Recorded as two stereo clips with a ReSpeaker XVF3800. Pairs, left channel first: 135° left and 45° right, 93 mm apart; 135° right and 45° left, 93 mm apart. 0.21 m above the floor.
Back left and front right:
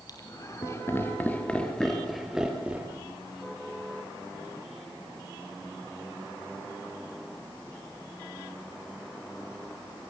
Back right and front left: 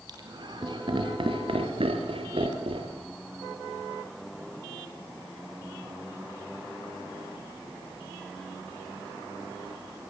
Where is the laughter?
90° left, 4 m; by 3.0 s 30° left, 4 m.